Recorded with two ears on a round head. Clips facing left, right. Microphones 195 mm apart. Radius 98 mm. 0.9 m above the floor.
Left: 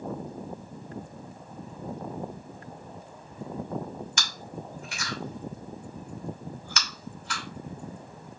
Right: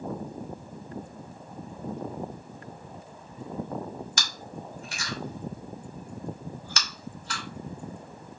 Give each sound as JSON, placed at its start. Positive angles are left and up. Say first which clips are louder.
{"t": 4.2, "sound": "chewing", "louder": "even", "side_deg": -35, "distance_m": 2.5}